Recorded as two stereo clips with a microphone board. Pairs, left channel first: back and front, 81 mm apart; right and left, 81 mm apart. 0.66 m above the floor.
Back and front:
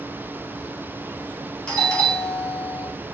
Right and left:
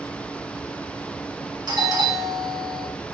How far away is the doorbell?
About 4 m.